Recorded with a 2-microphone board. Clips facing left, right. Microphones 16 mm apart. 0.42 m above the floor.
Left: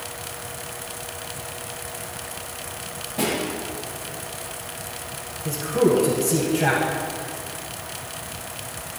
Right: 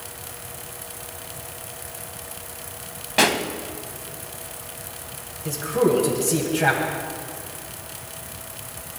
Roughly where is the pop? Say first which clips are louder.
Right 6 dB; right.